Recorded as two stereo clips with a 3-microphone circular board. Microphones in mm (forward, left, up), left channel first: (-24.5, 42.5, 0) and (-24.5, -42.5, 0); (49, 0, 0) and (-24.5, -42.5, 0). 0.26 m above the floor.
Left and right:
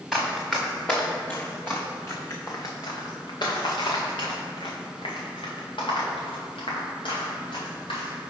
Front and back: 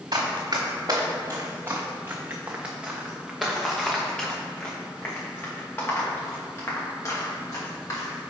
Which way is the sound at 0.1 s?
Straight behind.